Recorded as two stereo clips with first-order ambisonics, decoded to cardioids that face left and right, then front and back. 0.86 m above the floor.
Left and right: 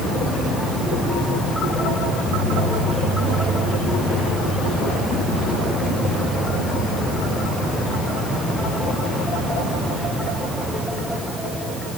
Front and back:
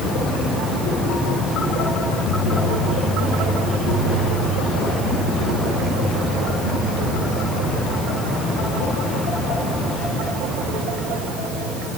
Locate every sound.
Only background noise.